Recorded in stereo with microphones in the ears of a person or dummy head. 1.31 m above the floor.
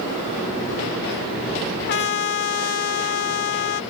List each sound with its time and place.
1.9 s a trumpet: 50° left (ahead or behind)